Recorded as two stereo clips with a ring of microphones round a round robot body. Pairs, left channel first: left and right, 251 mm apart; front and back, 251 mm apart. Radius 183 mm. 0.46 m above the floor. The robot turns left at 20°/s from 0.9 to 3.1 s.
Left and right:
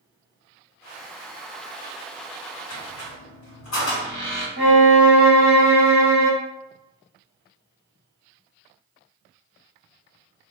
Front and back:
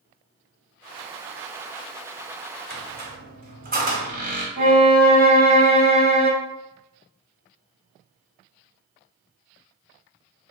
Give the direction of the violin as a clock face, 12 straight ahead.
5 o'clock.